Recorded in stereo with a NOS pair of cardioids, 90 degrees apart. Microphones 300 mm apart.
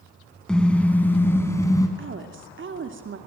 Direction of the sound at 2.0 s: 40° right.